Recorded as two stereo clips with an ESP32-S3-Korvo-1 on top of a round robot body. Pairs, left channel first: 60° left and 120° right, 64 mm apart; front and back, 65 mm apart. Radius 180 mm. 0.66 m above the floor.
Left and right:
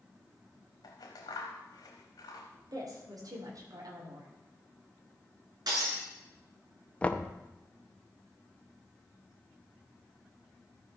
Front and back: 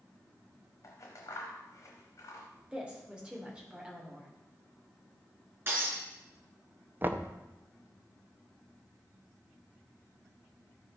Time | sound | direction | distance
0.8 | scissors | 45° left | 0.8 m
2.7 | a woman speaking | 105° right | 2.5 m
5.7 | breaking glass | 125° right | 3.5 m
7.0 | knocking | 130° left | 0.9 m